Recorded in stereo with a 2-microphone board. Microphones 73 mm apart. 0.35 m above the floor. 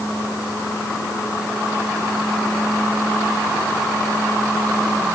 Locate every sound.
Only background noise.